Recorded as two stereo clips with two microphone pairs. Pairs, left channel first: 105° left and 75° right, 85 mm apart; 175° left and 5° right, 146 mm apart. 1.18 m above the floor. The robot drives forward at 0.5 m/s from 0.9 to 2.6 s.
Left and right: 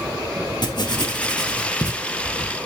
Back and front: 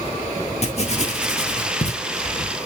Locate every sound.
0.6 s writing: 135° left, 2.5 m; by 2.5 s 145° left, 3 m